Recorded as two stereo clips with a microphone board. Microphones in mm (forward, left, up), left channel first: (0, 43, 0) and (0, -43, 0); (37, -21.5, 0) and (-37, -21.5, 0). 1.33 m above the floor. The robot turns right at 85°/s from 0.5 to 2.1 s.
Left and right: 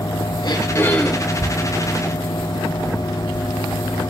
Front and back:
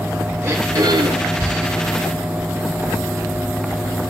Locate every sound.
0.4 s throat clearing: 125° left, 4 m; by 1.4 s 160° right, 4 m